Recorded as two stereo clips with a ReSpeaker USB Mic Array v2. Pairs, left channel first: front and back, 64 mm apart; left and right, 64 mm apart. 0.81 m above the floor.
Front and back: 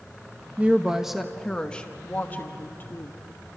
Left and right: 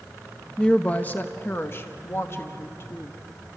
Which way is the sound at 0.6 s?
145° left.